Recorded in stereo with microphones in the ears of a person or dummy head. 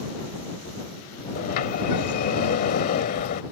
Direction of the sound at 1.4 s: 55° left (ahead or behind).